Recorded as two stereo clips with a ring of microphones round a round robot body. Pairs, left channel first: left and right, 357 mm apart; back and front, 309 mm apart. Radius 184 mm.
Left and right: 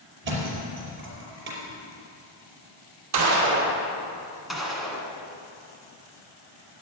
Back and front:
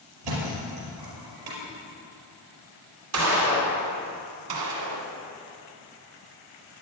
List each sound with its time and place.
0.2 s a thud: 30° right, 5 m
3.1 s a gunshot: 45° right, 2.5 m
4.5 s a gunshot: straight ahead, 1.5 m